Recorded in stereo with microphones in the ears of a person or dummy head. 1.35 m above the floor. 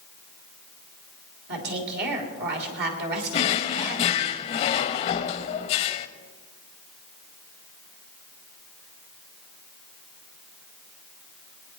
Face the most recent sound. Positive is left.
turn(degrees=35)  # may be behind; listen again after turning